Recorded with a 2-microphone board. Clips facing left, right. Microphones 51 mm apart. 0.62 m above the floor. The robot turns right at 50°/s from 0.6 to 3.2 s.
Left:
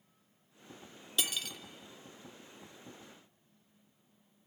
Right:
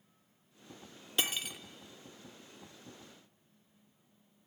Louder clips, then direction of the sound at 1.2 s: Right 1 dB; 35° right (ahead or behind).